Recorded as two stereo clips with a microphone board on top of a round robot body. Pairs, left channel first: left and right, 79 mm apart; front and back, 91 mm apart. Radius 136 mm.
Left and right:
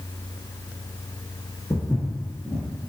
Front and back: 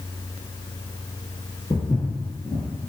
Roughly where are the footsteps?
Ahead left.